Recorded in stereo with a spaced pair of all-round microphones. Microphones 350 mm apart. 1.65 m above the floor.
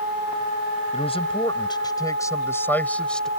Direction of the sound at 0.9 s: 15° left (ahead or behind).